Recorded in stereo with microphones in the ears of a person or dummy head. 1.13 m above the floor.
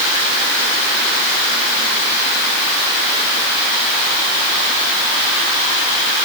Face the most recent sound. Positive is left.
No sound to turn to.